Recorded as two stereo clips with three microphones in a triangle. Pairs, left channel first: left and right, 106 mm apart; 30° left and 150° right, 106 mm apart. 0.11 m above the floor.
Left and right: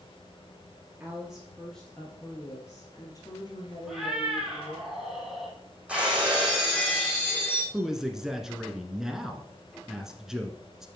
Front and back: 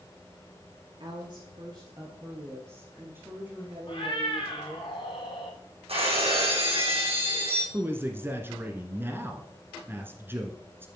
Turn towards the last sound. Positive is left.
turn(degrees=-165)